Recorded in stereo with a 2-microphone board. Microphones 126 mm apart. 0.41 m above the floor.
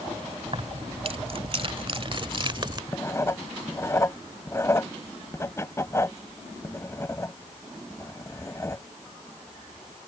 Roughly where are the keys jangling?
Right.